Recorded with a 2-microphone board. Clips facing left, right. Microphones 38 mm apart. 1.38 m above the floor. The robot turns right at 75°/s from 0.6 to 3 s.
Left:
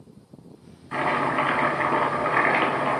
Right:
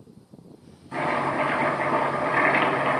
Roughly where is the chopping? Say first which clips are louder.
Left 1 dB; ahead left.